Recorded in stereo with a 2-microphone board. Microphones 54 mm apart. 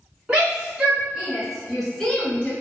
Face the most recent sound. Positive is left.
turn(degrees=25)  # may be behind; listen again after turning